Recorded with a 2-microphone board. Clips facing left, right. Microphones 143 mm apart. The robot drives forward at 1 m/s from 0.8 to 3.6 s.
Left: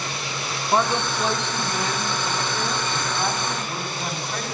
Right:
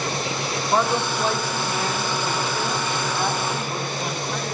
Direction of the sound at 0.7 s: 5° left (ahead or behind).